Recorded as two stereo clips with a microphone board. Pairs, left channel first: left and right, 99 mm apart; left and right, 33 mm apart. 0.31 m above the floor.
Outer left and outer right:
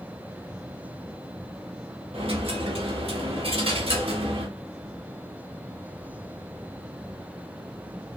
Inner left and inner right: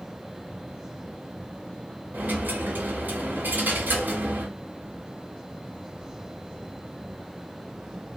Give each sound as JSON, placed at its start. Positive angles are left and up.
{"t": 2.1, "sound": "a dropped coin", "side_deg": -75, "distance_m": 1.2}